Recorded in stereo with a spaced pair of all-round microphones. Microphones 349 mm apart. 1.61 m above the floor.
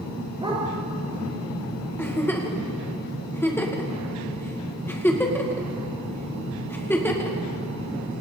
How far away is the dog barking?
About 7 m.